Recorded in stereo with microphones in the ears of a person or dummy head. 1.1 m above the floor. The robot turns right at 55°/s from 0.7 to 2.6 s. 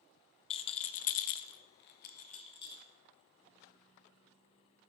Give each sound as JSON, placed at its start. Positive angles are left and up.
{"t": 0.5, "sound": "a rattle", "side_deg": 30, "distance_m": 0.5}